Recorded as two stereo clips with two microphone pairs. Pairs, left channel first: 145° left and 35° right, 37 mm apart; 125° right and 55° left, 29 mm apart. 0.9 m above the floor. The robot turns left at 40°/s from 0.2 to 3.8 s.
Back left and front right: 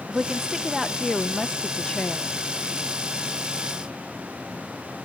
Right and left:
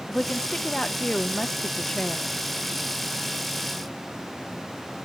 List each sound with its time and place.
0.1 s a woman speaking: 105° right, 0.6 m; by 2.3 s 175° left, 0.6 m